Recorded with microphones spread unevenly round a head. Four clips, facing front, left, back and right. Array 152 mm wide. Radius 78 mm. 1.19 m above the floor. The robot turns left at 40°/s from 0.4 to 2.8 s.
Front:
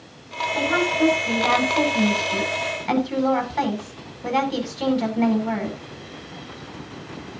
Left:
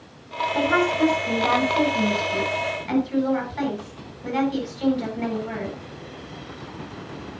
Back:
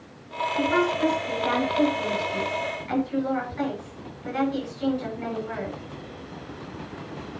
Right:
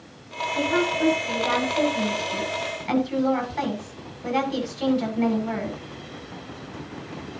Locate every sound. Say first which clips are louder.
0.6 s a woman speaking: left 3 dB, front 2 dB; 75° left, 9 m; by 5.8 s 15° right, 9 m